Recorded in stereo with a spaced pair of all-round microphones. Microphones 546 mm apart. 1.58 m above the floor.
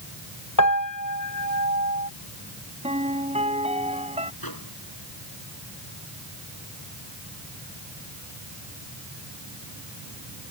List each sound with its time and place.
0.6 s a piano: 35° left (ahead or behind)
2.8 s a piano: 10° right (ahead or behind)
4.4 s a microwave: 40° left (ahead or behind)